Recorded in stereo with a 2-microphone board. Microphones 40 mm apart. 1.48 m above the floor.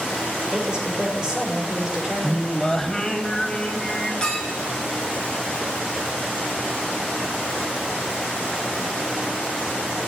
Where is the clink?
20° left (ahead or behind), 5.5 m.